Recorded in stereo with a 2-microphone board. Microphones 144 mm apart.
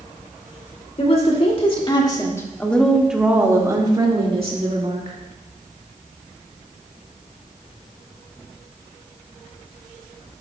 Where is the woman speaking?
50° left (ahead or behind), 2.0 m; by 5.2 s 55° right (ahead or behind), 2 m.